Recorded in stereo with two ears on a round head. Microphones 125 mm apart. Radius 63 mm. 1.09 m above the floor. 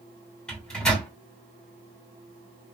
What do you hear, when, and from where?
0.5 s a microwave: 5° left (ahead or behind), 2 m